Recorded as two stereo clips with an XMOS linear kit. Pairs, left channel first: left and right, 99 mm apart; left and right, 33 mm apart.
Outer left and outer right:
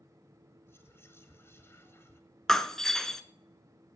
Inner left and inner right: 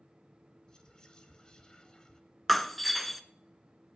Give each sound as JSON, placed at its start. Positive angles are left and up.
{"t": 0.7, "sound": "whispering", "side_deg": 25, "distance_m": 1.7}
{"t": 2.5, "sound": "breaking glass", "side_deg": 5, "distance_m": 0.8}